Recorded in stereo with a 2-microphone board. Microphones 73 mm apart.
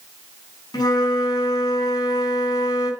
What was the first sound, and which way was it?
A flute, 65° left (ahead or behind).